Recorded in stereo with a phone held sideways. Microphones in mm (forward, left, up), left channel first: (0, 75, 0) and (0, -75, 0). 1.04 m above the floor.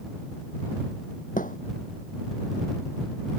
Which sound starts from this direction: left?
A thud, at 1.4 s.